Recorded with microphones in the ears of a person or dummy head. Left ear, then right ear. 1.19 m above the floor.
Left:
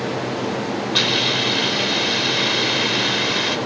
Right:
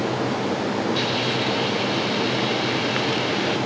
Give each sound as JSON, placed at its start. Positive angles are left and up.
{"t": 0.9, "sound": "a hiss", "side_deg": 50, "distance_m": 5.5}